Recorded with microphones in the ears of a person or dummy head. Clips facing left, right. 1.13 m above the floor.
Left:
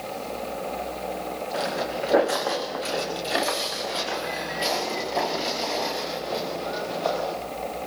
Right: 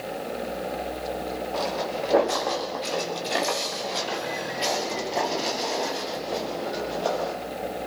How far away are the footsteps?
About 3.5 m.